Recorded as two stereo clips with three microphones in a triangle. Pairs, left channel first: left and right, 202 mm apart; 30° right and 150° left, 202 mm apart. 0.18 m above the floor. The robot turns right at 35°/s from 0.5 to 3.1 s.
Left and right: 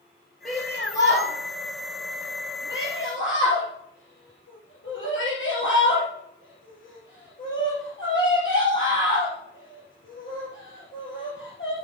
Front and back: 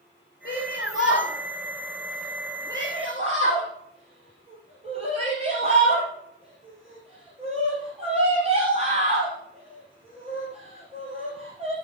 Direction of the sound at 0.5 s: Straight ahead.